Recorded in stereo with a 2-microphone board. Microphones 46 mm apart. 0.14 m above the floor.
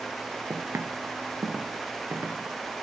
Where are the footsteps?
75° right (ahead or behind), 1.9 m; by 2.8 s 60° right (ahead or behind), 4 m.